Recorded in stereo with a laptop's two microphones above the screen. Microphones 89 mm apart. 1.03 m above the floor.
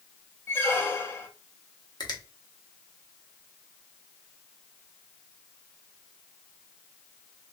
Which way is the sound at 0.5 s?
30° left (ahead or behind).